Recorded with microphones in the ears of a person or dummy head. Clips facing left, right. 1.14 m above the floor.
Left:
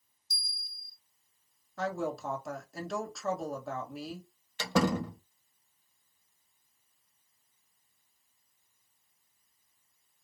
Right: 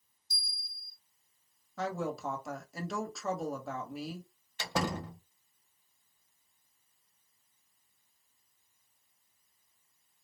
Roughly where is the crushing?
No crushing in this recording.